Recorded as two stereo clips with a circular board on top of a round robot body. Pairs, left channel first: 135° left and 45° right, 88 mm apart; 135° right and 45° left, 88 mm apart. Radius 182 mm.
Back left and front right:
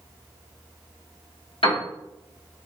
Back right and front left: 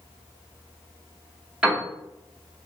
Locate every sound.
1.6 s a piano: 120° left, 2 m